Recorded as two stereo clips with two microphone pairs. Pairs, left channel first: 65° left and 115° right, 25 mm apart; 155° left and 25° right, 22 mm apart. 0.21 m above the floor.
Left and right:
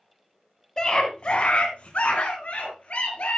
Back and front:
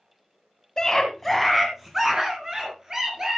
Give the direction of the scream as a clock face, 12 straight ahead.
8 o'clock.